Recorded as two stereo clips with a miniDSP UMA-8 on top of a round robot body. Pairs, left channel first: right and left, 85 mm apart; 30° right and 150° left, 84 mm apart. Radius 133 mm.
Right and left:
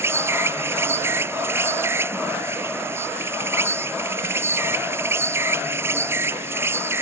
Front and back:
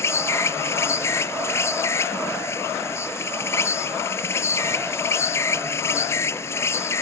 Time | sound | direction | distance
0.0 | an insect | 30° left | ?